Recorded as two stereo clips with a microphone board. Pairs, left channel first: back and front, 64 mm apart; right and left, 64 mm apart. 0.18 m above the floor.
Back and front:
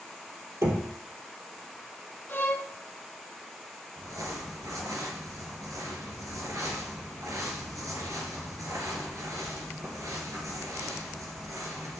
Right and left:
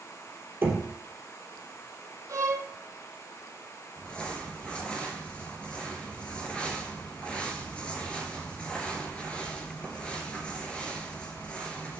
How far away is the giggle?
No giggle in this recording.